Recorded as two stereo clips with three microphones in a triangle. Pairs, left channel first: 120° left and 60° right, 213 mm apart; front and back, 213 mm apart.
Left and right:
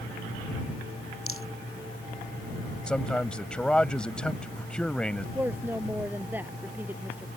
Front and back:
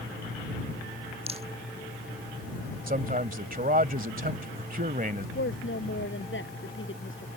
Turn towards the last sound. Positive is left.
turn(degrees=20)